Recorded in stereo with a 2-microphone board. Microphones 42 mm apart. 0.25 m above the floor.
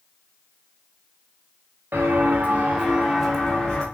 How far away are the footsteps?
About 1.0 m.